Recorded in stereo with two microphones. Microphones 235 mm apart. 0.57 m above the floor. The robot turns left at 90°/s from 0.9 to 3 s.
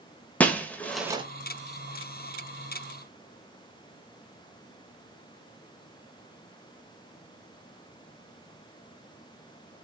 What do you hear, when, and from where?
0.4 s breaking glass: 5° left (ahead or behind), 0.9 m; by 1.2 s 25° right (ahead or behind), 0.9 m